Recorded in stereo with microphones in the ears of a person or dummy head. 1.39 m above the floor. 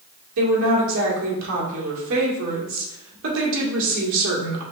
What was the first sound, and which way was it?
A woman speaking, 70° right (ahead or behind).